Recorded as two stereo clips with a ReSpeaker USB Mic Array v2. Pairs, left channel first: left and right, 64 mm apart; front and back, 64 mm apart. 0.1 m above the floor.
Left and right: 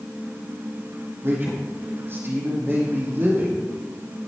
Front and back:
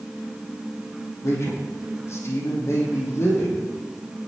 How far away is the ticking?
I don't hear ticking.